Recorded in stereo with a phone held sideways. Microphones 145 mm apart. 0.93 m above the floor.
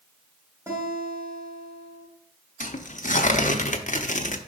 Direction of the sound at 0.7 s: 15° right (ahead or behind).